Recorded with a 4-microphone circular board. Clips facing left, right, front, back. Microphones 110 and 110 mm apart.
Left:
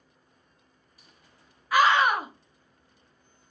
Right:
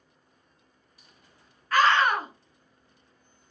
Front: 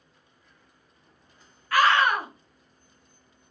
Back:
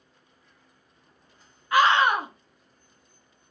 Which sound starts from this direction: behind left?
A scream, at 1.7 s.